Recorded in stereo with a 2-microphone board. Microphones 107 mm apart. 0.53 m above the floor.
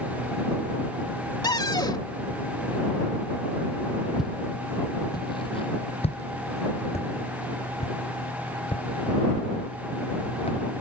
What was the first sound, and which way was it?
A cupboard door, 40° left (ahead or behind).